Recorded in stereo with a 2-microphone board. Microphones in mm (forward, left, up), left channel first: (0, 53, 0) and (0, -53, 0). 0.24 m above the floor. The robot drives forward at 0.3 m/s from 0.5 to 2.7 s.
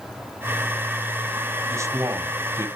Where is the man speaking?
30° right (ahead or behind), 1.8 m.